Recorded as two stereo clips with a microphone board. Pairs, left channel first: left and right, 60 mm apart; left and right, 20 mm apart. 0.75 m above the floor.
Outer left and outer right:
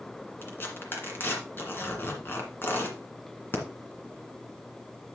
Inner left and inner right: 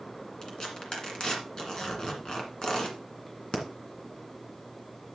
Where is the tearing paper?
35° left (ahead or behind), 2 m.